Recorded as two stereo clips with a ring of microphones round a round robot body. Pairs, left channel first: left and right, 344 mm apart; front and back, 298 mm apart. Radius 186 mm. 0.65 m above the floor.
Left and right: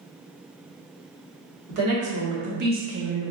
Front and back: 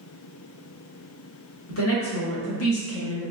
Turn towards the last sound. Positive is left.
turn(degrees=-5)